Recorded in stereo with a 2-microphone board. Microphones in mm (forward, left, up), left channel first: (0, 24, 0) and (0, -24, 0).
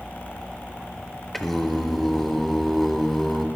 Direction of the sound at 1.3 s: 5° left (ahead or behind).